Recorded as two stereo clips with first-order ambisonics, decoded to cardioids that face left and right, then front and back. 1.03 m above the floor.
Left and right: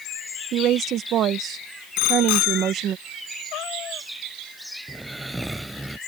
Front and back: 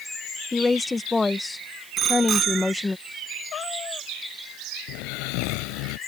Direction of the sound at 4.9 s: 5° right.